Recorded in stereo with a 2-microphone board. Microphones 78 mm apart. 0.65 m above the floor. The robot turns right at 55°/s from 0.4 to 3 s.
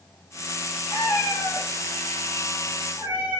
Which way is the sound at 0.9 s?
85° left.